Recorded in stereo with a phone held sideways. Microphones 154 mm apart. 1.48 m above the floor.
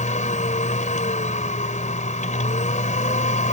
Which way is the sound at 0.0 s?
60° left (ahead or behind).